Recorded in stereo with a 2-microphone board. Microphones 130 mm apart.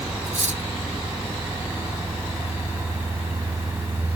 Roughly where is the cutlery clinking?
Right.